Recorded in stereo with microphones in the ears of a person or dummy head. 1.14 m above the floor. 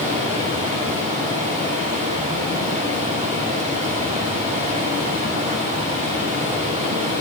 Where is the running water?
30° right (ahead or behind), 1.6 m.